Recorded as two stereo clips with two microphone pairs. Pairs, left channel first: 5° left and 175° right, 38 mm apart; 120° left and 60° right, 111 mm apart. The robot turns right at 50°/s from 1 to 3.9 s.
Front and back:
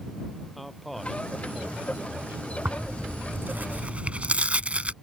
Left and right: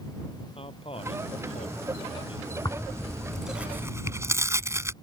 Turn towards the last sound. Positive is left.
turn(degrees=-120)